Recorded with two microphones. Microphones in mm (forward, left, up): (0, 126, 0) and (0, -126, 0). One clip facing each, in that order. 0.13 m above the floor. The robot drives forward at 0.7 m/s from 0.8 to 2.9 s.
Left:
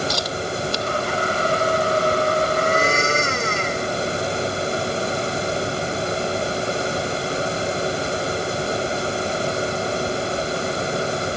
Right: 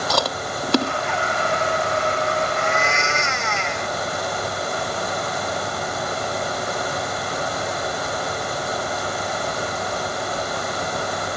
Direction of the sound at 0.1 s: 70° right (ahead or behind).